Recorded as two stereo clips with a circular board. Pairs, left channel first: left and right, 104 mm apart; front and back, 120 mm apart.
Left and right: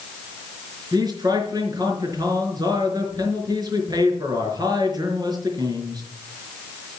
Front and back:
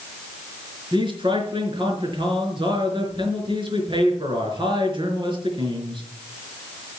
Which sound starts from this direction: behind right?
A man speaking, at 0.9 s.